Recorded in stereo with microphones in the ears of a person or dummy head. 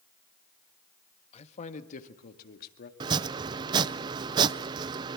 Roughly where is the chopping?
Right.